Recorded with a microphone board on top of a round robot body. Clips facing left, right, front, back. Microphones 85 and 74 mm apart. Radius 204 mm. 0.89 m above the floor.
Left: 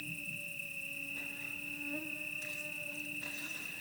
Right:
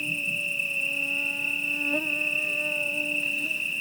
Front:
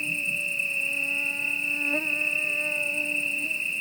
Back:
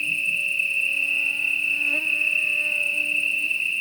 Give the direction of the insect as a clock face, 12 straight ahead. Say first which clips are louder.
Right 13 dB, back 4 dB; 2 o'clock.